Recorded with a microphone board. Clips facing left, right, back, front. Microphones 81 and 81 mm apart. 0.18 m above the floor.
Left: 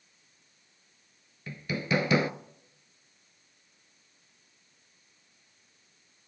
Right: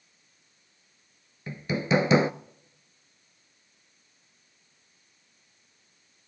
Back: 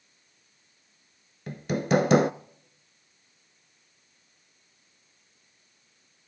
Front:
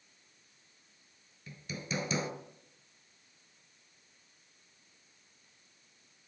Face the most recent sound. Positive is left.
turn(degrees=-155)